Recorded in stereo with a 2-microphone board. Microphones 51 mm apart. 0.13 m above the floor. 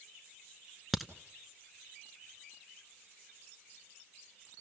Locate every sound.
0.9 s a crack: 5° right (ahead or behind), 0.9 m